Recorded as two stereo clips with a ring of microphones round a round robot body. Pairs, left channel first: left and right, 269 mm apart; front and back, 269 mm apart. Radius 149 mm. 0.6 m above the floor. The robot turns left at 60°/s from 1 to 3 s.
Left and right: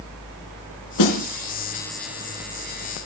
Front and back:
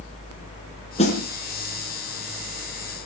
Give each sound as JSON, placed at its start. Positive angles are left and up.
{"t": 1.0, "sound": "a snare drum", "azimuth_deg": 70, "distance_m": 3.5}